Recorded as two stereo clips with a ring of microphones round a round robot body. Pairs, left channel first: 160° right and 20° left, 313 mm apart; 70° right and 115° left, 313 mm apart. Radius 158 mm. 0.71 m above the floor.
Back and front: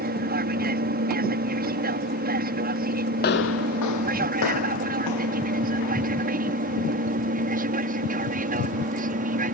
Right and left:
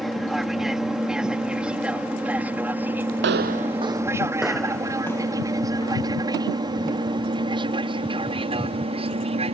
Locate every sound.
0.0 s an aircraft: 25° left; by 9.6 s 60° left
3.2 s footsteps: 150° left; by 6.1 s 145° right